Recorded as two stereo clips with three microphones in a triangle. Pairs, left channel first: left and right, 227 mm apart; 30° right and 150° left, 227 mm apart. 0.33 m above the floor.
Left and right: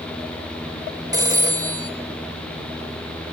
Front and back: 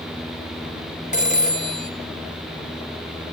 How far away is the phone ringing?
About 0.6 m.